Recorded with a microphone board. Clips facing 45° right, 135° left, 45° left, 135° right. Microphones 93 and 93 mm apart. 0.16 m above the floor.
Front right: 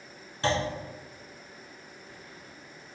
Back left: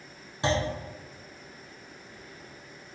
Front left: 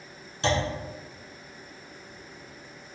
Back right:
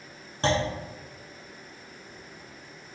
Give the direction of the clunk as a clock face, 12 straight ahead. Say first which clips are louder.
Even, back right 1 dB; 5 o'clock.